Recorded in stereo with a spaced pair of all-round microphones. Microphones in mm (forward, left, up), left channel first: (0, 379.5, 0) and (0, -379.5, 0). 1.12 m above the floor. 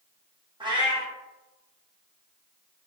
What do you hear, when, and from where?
0.6 s a cat meowing: 5° right (ahead or behind), 0.7 m